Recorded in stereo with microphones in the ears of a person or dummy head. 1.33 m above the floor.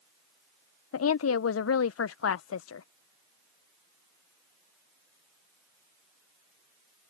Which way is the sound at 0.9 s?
80° left.